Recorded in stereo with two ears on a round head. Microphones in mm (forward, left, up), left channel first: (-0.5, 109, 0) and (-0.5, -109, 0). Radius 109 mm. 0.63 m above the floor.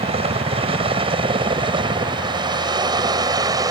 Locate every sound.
0.0 s a helicopter: 25° right (ahead or behind); by 3.7 s 15° right (ahead or behind)